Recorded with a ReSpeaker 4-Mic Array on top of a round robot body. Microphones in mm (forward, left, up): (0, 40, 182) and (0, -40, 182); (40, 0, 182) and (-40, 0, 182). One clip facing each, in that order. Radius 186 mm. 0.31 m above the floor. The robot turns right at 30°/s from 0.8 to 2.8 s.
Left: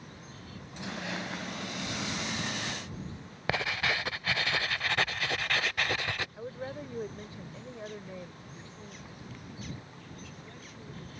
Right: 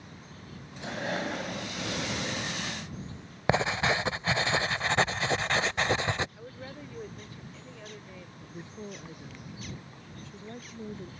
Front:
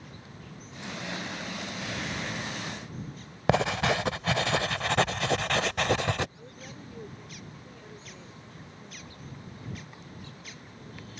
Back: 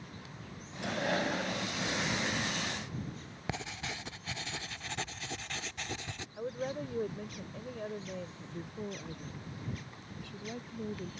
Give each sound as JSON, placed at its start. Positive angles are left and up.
{"t": 0.8, "sound": "breathing", "azimuth_deg": -150}
{"t": 3.5, "sound": "writing", "azimuth_deg": -25}
{"t": 6.4, "sound": "a woman speaking", "azimuth_deg": 150}
{"t": 8.4, "sound": "a woman speaking", "azimuth_deg": -150}